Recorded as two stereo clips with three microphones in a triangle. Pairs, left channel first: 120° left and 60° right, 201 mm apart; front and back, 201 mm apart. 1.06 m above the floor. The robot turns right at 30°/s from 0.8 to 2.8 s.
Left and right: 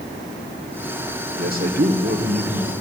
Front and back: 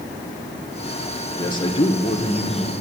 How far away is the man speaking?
About 1.0 m.